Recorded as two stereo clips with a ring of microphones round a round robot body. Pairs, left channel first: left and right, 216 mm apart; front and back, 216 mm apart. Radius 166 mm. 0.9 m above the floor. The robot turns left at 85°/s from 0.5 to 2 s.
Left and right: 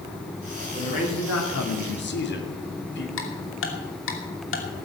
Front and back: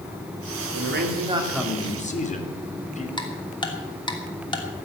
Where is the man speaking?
165° left, 2.5 m; by 3.1 s 55° left, 2.5 m.